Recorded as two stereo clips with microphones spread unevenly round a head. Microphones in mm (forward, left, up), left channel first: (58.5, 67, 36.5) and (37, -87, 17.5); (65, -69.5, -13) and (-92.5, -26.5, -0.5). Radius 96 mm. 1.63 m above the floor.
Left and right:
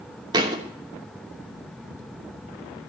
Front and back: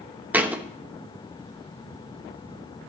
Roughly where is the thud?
Behind right.